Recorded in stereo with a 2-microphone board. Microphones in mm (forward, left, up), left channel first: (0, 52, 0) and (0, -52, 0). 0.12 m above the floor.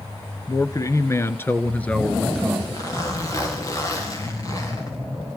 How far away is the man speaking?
About 1.4 m.